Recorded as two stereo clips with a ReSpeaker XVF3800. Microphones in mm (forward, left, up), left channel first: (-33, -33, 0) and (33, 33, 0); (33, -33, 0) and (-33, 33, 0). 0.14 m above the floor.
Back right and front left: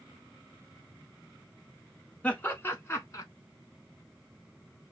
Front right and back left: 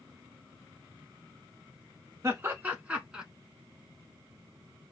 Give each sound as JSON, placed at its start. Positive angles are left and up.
{"t": 2.2, "sound": "laughter", "azimuth_deg": 165, "distance_m": 1.2}